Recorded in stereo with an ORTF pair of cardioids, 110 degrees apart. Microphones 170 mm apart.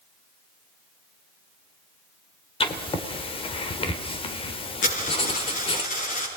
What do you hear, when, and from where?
2.6 s writing: 30° left, 2.5 m
4.8 s a dropped coin: 45° left, 9 m